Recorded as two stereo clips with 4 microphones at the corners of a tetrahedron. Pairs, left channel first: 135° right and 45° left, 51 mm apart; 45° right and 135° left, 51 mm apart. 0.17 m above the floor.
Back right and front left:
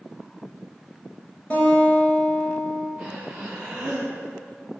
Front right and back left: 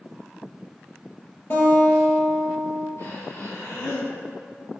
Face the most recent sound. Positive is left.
turn(degrees=-20)